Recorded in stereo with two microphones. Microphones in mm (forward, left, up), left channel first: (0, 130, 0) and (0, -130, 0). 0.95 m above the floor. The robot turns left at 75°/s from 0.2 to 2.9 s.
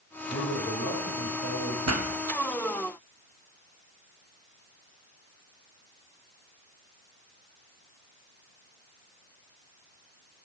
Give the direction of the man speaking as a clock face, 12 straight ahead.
7 o'clock.